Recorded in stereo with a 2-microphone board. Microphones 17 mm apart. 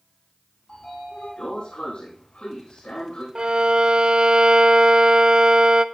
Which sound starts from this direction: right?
A violin, at 3.4 s.